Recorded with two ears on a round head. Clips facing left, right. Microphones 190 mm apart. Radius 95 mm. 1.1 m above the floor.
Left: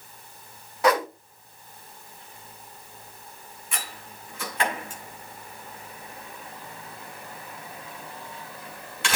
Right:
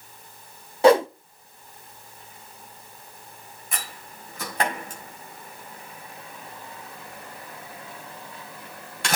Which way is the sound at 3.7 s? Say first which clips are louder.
Even; 35° right (ahead or behind).